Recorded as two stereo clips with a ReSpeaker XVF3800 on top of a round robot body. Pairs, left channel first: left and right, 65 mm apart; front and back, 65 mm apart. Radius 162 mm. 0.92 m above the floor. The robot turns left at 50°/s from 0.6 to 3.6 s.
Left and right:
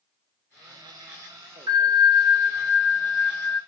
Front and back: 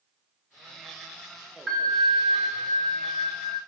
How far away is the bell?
About 1.2 m.